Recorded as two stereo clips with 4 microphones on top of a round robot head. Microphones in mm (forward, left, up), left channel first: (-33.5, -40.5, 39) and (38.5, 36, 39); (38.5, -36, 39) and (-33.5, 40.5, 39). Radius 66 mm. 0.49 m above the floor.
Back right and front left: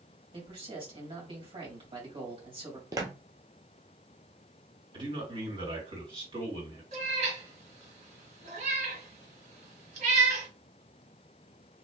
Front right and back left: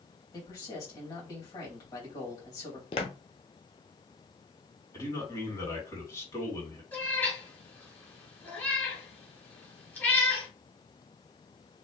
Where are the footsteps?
10° right, 0.8 m.